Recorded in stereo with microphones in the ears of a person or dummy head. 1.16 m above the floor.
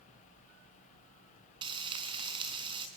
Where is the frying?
30° right (ahead or behind), 4 m.